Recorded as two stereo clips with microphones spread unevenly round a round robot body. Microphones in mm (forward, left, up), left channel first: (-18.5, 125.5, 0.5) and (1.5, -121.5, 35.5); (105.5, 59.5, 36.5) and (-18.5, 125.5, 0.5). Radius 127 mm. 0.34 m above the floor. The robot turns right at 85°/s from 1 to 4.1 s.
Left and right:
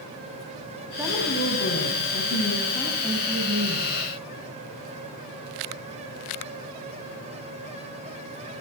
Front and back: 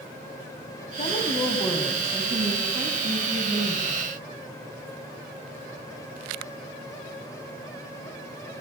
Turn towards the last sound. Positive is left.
turn(degrees=-95)